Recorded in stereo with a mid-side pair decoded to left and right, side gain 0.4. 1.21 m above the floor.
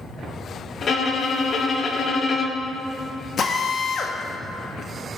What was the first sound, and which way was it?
A violin, 50° left.